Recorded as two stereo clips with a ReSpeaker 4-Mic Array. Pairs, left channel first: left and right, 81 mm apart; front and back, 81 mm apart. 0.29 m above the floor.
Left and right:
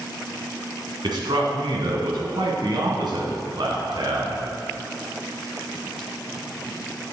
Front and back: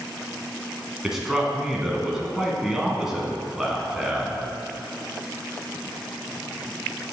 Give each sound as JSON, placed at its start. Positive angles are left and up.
{"t": 1.0, "sound": "a man speaking", "azimuth_deg": -95, "distance_m": 2.0}